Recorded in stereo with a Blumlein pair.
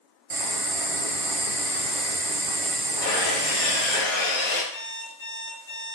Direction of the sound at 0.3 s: 50° right.